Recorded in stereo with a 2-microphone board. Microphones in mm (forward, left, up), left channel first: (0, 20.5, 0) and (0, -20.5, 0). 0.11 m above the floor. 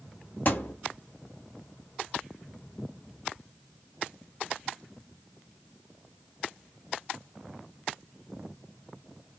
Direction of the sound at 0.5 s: 50° left (ahead or behind).